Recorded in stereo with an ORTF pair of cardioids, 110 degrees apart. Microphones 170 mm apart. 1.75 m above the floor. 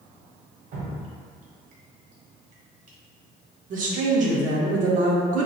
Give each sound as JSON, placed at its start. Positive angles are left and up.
{"t": 0.7, "sound": "dripping", "azimuth_deg": -50, "distance_m": 1.0}
{"t": 3.7, "sound": "a woman speaking", "azimuth_deg": -50, "distance_m": 0.6}